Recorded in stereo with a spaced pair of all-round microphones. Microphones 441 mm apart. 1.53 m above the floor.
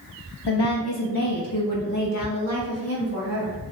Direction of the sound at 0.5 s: 65° left (ahead or behind).